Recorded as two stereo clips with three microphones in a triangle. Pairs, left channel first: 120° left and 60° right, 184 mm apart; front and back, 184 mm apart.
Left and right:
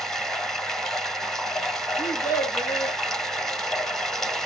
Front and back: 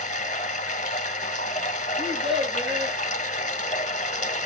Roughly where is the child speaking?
Behind.